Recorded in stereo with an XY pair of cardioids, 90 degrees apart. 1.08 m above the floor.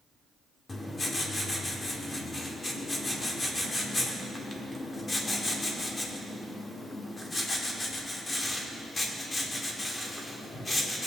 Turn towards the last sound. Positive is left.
turn(degrees=35)